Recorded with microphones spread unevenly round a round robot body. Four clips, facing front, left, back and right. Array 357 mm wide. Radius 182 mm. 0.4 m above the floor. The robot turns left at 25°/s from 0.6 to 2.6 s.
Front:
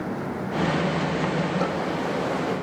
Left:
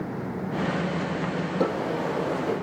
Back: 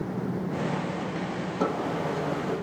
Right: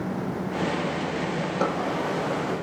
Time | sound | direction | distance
1.6 | a drawer | 100° left | 6.5 m